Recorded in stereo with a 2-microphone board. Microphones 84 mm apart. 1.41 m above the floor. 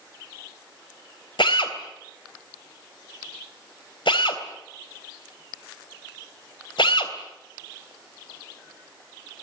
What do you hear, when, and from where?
1.4 s a drill: 75° left (ahead or behind), 3 m